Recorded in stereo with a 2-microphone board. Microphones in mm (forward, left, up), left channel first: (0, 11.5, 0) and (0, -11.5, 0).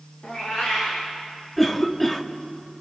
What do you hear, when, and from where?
0.2 s a cat meowing: 35° left (ahead or behind), 6.5 m
1.6 s a cough: 15° left (ahead or behind), 1.6 m